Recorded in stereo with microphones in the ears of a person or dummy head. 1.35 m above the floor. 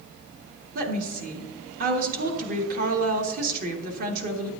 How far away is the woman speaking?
About 1.6 m.